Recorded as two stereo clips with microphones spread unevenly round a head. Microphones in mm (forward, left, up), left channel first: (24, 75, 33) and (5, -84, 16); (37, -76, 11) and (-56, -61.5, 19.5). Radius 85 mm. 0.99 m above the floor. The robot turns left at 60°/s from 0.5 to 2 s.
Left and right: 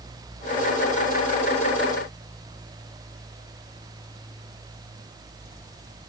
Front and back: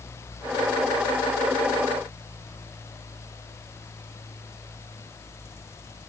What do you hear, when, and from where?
Only background noise.